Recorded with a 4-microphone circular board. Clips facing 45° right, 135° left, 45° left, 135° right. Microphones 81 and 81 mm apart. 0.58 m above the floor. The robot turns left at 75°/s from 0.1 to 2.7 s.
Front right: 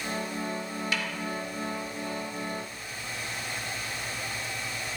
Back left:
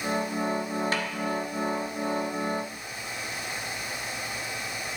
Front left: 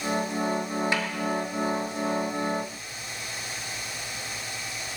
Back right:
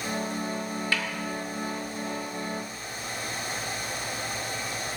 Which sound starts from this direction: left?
A snare drum, at 0.9 s.